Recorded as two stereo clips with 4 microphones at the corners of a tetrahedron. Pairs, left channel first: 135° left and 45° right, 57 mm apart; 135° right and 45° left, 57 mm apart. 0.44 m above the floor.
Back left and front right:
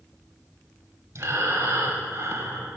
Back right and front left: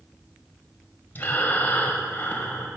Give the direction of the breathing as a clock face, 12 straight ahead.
3 o'clock.